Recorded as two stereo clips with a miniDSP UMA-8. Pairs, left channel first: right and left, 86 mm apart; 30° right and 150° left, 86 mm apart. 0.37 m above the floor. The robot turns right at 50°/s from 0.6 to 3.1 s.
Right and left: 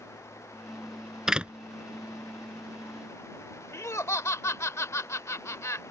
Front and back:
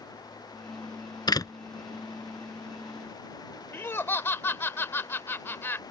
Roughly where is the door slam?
Ahead.